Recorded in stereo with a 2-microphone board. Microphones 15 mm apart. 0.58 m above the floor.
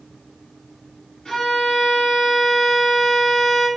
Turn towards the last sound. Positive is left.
turn(degrees=55)  # may be behind; listen again after turning